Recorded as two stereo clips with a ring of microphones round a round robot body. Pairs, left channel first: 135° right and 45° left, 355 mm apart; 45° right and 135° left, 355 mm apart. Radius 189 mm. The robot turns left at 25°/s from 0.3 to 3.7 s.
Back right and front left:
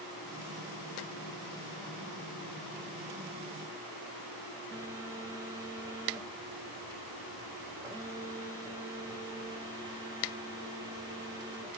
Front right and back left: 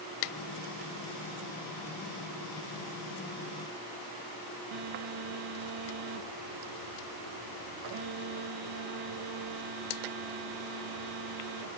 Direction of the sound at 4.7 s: 125° left.